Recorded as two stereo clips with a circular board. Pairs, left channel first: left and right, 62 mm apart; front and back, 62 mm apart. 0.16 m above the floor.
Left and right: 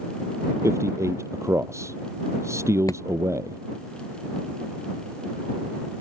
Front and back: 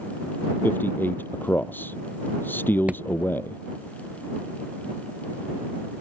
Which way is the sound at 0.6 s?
55° right.